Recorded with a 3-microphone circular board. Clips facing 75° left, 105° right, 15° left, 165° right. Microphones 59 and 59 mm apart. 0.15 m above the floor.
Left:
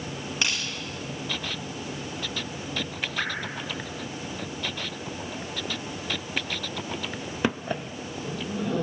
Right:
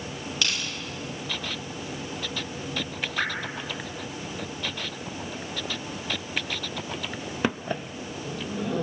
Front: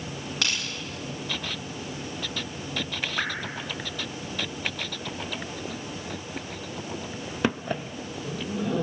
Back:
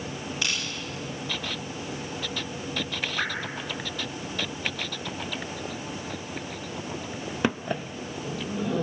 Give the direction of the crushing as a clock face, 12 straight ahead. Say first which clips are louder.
Left 1 dB, front 1 dB; 12 o'clock.